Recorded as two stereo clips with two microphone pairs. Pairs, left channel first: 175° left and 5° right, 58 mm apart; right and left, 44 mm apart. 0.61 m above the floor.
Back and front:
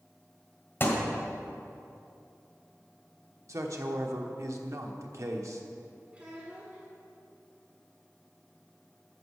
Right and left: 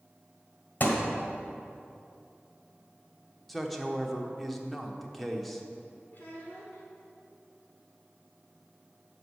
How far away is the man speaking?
About 1.1 m.